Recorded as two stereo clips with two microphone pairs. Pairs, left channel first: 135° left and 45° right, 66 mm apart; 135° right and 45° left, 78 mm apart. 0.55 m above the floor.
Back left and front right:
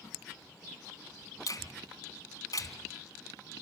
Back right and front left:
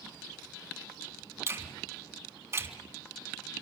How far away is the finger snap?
About 3.5 m.